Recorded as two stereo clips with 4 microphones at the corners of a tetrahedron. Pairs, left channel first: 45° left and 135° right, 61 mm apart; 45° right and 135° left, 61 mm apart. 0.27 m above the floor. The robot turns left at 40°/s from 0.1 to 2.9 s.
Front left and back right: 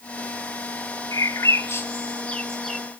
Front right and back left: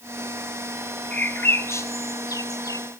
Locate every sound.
1.1 s a bird: 20° left, 0.9 m; by 2.8 s 45° right, 0.9 m